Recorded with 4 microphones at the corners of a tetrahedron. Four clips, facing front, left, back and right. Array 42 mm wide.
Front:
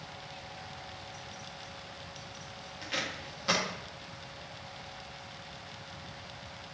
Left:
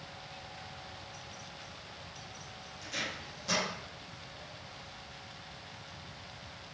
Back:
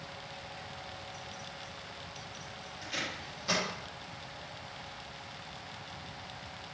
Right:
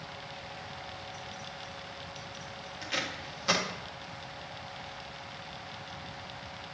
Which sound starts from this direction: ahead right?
Tape being pulled, at 2.8 s.